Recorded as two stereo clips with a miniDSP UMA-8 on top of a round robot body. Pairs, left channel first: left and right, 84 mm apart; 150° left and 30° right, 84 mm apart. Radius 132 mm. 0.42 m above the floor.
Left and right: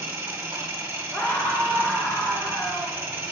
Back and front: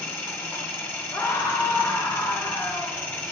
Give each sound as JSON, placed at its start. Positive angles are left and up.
{"t": 0.0, "sound": "an engine running", "azimuth_deg": -150, "distance_m": 1.5}
{"t": 1.1, "sound": "a scream", "azimuth_deg": 150, "distance_m": 1.2}